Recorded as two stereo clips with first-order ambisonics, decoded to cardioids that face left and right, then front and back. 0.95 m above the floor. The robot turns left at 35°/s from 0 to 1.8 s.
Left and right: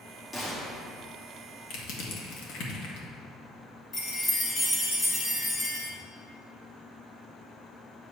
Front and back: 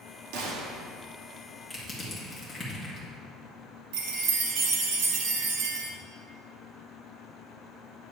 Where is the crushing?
85° left, 1.7 m; by 3.1 s 80° left, 1.7 m.